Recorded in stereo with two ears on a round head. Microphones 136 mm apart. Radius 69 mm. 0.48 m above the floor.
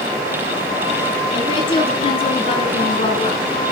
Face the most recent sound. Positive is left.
turn(degrees=35)  # may be behind; listen again after turning